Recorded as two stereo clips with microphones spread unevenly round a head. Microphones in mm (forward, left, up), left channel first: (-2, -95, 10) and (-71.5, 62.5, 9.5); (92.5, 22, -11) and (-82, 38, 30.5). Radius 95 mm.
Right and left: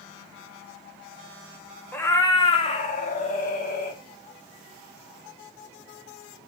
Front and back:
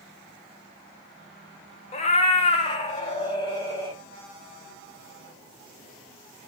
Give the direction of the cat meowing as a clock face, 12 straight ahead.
12 o'clock.